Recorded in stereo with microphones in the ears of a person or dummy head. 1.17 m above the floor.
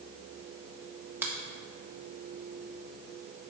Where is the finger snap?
10° right (ahead or behind), 0.9 m.